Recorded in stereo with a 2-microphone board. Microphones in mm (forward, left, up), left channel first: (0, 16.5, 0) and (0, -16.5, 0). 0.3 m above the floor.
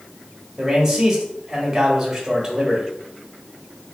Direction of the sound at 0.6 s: 15° right (ahead or behind).